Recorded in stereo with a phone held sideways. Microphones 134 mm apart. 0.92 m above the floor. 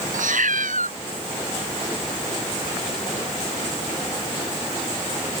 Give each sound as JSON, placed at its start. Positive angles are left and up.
{"t": 0.1, "sound": "a cat meowing", "side_deg": -80}